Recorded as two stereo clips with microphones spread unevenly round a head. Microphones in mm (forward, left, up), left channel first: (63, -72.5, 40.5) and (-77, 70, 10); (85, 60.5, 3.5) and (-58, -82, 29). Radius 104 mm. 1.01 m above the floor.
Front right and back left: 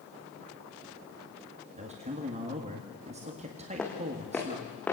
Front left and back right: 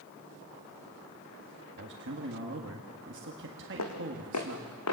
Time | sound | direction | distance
1.8 | a man speaking | 170° right | 1.9 m
3.8 | footsteps | 40° left | 3.5 m